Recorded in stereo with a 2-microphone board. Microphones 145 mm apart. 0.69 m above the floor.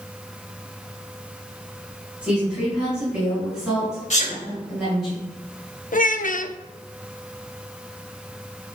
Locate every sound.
2.2 s a woman speaking: 10° right (ahead or behind), 4 m; by 5.1 s centre (ahead or behind), 7 m
4.1 s a sneeze: 55° left (ahead or behind), 3 m
5.9 s a child speaking: 65° left (ahead or behind), 0.6 m